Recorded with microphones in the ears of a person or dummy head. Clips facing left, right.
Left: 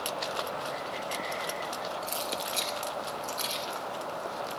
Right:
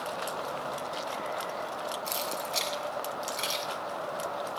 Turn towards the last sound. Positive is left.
turn(degrees=-85)